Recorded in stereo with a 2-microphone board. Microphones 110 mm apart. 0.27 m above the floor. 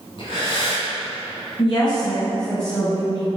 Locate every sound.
0.2 s breathing: 50° left (ahead or behind), 2.5 m
1.6 s a woman speaking: 45° left (ahead or behind), 1.9 m